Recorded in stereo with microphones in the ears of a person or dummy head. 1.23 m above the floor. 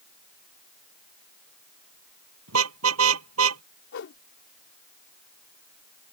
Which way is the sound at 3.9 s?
65° left (ahead or behind).